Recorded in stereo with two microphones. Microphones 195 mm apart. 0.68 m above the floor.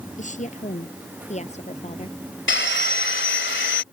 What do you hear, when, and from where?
0.2 s a woman speaking: 40° left (ahead or behind); by 2.2 s 35° left (ahead or behind)
2.5 s sawing: 70° left (ahead or behind)